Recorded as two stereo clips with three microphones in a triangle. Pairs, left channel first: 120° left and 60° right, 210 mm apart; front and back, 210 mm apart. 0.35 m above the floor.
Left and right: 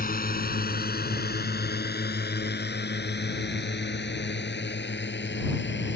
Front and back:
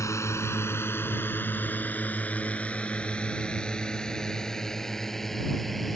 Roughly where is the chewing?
I don't hear chewing.